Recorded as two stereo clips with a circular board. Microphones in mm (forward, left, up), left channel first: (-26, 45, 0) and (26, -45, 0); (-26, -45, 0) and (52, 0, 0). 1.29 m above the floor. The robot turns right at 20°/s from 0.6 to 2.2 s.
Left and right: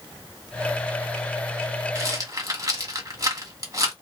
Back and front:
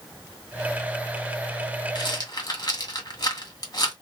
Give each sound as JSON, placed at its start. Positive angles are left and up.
{"t": 1.9, "sound": "a rattle", "azimuth_deg": -115, "distance_m": 1.9}